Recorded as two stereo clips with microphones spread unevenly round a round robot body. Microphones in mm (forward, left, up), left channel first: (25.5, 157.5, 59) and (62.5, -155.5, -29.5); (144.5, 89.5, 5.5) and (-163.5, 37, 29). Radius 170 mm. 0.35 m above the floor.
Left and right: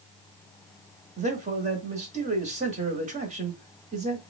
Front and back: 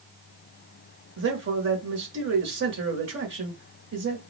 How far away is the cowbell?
I don't hear a cowbell.